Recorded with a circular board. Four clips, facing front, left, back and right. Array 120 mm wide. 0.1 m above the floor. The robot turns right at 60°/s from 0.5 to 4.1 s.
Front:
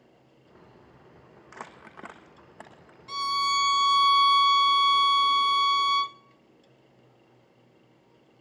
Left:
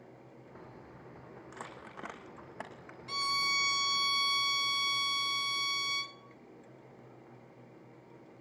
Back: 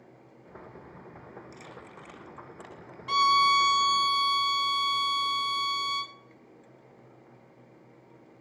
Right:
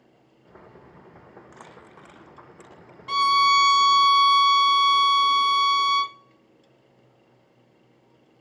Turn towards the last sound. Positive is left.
turn(degrees=-70)